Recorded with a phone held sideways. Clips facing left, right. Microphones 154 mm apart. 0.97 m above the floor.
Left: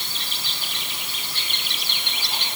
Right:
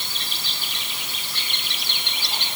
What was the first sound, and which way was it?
Only background noise.